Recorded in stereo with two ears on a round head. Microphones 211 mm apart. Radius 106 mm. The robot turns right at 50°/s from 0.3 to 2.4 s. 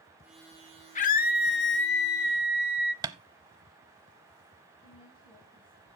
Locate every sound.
0.9 s a scream: 45° left, 1.5 m; by 2.9 s 115° left, 1.5 m
3.0 s tapping: 15° right (ahead or behind), 0.6 m
4.8 s a woman speaking: 25° left (ahead or behind), 3 m